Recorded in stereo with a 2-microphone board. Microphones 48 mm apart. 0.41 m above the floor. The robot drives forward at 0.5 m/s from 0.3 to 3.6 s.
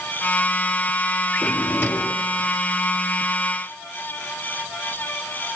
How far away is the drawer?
About 2 m.